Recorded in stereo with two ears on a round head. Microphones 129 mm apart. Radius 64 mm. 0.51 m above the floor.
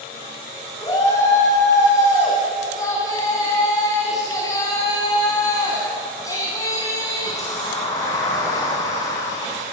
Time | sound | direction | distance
0.8 | a shout | 25° left (ahead or behind) | 3.5 m